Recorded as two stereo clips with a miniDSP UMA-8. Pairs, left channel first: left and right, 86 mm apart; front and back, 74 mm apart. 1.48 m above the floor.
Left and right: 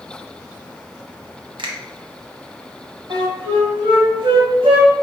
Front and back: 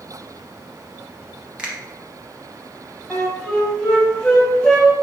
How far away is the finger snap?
About 1.0 m.